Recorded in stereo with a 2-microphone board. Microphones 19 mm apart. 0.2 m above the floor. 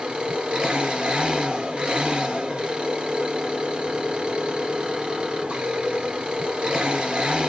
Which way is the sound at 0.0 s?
70° right (ahead or behind).